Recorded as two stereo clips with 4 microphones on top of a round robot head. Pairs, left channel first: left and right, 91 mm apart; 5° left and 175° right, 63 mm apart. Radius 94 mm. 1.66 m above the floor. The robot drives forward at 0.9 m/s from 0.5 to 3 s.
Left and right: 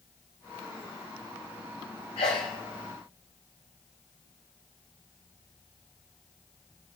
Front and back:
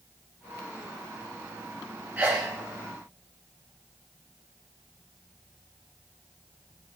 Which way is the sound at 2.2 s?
125° left.